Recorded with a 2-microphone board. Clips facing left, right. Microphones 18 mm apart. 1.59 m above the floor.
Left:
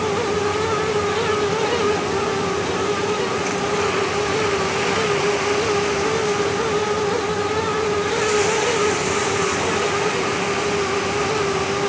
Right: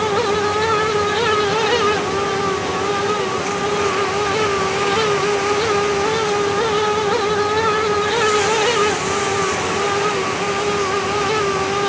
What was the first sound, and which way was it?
Only background noise.